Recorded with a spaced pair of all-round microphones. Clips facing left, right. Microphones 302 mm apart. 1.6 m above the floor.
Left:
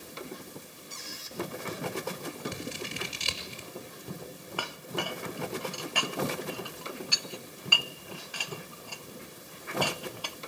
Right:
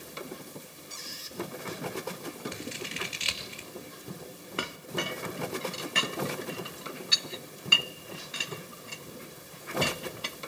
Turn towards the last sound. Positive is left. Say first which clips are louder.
# right 2 dB
turn(degrees=-25)  # may be behind; listen again after turning